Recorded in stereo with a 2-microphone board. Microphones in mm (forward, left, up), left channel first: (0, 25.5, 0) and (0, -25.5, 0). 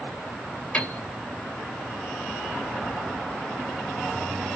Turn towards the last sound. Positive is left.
turn(degrees=25)  # may be behind; listen again after turning